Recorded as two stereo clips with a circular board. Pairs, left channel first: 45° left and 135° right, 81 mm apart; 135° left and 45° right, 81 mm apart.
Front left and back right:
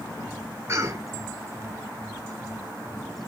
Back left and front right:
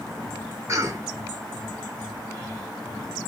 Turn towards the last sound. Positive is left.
turn(degrees=-90)